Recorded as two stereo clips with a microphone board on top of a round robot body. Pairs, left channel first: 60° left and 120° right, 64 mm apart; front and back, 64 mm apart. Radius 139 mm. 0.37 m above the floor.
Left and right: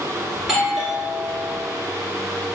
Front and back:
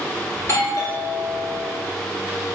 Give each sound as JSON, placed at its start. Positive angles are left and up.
{"t": 0.4, "sound": "a doorbell", "azimuth_deg": -35, "distance_m": 3.0}